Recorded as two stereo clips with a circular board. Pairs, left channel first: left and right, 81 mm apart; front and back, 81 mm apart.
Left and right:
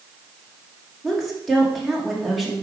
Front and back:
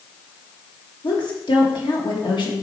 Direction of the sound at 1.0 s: Straight ahead.